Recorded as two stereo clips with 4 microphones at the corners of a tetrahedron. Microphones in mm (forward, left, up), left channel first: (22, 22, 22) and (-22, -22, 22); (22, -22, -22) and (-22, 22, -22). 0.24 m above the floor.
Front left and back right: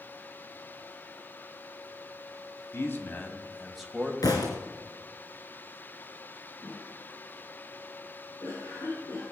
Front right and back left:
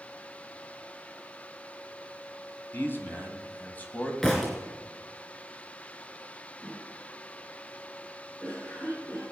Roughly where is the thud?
Ahead left.